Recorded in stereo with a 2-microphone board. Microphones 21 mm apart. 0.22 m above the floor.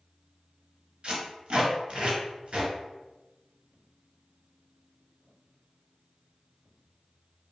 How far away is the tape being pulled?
About 1.5 m.